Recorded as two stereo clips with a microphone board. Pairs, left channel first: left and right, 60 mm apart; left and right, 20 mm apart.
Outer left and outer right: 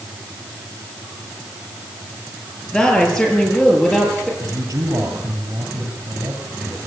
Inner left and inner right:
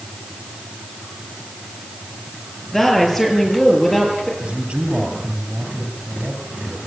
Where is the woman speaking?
10° left (ahead or behind), 7.5 m; by 4.3 s centre (ahead or behind), 8.5 m.